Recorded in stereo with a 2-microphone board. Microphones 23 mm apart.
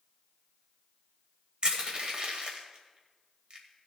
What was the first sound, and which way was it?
Crushing, 50° right (ahead or behind).